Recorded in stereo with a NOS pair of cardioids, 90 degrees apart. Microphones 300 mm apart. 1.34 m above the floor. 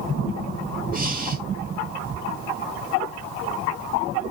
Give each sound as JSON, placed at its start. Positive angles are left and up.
{"t": 0.9, "sound": "breathing", "azimuth_deg": -30, "distance_m": 2.5}